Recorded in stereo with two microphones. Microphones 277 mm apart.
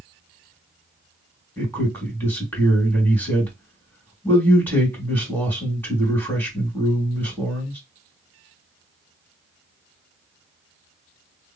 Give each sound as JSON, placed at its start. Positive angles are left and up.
{"t": 1.6, "sound": "a man speaking", "side_deg": 10, "distance_m": 2.0}